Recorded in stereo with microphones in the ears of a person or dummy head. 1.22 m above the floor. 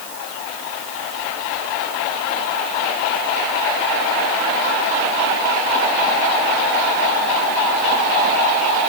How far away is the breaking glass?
I don't hear breaking glass.